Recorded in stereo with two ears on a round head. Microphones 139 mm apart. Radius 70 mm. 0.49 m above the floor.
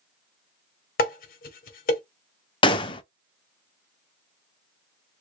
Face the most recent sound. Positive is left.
turn(degrees=30)  # may be behind; listen again after turning